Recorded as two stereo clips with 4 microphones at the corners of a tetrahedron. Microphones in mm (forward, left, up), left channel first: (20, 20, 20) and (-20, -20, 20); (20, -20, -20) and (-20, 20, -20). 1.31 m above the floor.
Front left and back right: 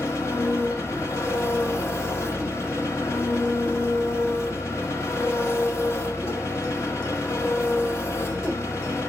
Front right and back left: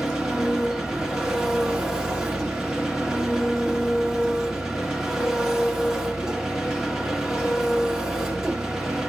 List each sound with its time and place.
0.0 s an engine running: 60° left, 1.2 m